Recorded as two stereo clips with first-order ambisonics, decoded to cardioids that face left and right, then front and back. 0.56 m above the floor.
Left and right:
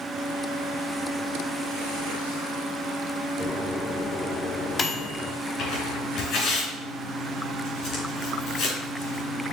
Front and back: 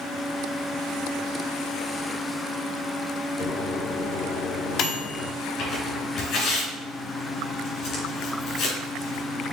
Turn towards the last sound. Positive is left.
turn(degrees=40)